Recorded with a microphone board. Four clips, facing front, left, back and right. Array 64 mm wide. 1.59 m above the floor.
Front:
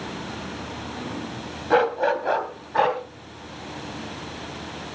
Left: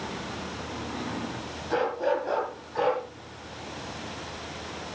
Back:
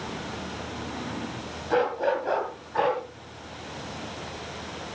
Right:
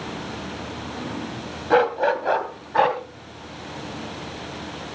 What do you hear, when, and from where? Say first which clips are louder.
1.7 s a dog barking: right 7 dB, front 4 dB; 55° right, 2 m; by 3.0 s 65° right, 2.5 m